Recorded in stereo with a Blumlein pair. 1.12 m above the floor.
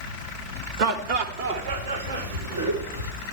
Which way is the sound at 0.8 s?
45° right.